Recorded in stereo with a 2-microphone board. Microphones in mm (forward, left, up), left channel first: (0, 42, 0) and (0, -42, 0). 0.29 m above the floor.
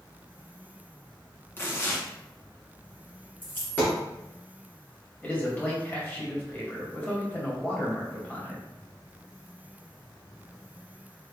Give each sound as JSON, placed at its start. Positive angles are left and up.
{"t": 1.6, "sound": "tearing paper", "side_deg": 30, "distance_m": 1.2}
{"t": 3.4, "sound": "a dropped coin", "side_deg": 25, "distance_m": 2.0}
{"t": 5.2, "sound": "a man speaking", "side_deg": 20, "distance_m": 1.5}